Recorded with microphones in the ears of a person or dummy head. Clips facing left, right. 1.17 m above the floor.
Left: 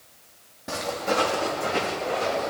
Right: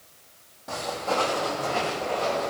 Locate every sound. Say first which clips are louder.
0.7 s footsteps: left 2 dB; 35° left (ahead or behind), 3 m; by 2.5 s 20° left (ahead or behind), 5.5 m